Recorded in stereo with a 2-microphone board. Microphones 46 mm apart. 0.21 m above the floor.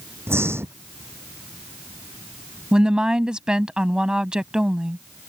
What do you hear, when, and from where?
0.3 s breathing: 65° right (ahead or behind)
2.7 s a woman speaking: 20° right (ahead or behind)